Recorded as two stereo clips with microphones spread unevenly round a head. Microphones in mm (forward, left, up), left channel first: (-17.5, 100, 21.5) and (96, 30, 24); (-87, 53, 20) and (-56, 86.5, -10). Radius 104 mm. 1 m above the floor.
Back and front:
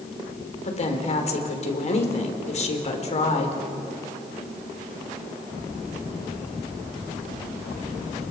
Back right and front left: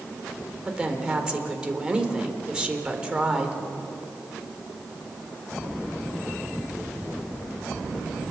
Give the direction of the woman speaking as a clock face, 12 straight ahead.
8 o'clock.